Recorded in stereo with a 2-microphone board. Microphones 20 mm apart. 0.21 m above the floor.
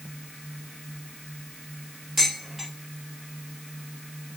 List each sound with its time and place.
2.2 s dishes clattering: 5° left (ahead or behind), 4.5 m